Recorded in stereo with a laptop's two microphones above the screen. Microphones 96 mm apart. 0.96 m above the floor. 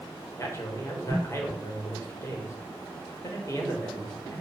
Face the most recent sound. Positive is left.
turn(degrees=30)  # may be behind; listen again after turning